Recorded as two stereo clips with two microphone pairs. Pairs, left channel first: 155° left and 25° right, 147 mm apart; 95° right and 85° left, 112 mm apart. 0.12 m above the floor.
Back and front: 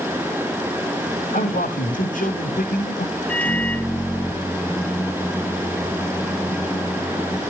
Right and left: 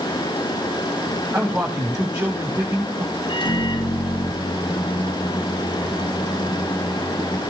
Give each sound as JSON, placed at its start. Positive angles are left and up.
{"t": 1.3, "sound": "a man speaking", "azimuth_deg": 165, "distance_m": 8.0}
{"t": 3.3, "sound": "a microwave", "azimuth_deg": -125, "distance_m": 2.5}